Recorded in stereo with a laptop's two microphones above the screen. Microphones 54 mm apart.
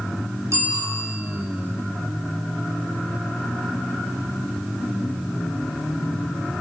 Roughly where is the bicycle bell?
Right.